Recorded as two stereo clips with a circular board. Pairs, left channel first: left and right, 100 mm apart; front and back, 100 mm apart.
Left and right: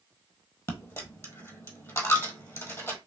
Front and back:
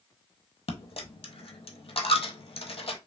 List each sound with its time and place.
0.7 s a dropped coin: 25° left, 0.7 m